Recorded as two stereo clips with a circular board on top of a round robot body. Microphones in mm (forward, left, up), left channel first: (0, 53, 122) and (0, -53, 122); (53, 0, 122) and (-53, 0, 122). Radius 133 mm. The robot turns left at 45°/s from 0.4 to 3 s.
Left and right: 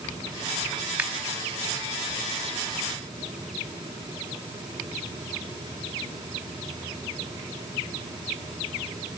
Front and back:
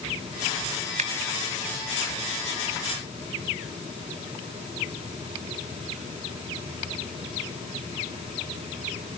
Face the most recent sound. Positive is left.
turn(degrees=105)